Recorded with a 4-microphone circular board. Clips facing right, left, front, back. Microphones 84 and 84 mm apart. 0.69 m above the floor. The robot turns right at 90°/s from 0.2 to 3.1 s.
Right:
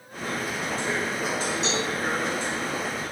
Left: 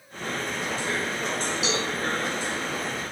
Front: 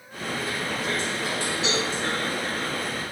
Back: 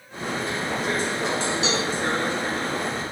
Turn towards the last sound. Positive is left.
turn(degrees=-55)